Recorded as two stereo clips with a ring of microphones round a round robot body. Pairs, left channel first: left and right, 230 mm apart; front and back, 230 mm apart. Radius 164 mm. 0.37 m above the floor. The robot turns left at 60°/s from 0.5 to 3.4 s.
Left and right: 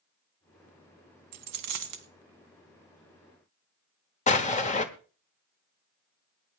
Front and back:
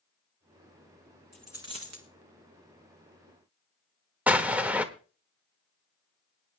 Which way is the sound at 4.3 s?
100° left.